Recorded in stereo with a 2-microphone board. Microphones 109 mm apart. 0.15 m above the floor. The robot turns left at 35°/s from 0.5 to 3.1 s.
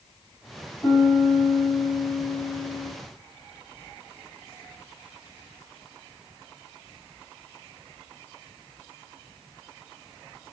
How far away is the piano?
About 1.7 m.